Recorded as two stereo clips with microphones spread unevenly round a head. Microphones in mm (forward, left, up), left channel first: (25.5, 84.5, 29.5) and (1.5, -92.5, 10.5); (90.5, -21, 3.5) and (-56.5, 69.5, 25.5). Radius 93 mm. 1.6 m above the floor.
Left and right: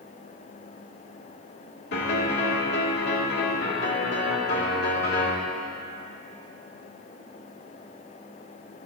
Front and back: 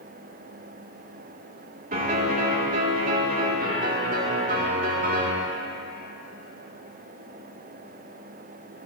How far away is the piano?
About 2.5 m.